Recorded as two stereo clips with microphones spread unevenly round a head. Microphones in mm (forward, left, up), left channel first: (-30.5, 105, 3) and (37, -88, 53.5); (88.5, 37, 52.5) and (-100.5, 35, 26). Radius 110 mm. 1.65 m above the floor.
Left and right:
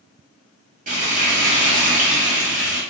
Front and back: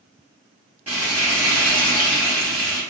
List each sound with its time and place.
0.9 s frying: 90° right, 0.9 m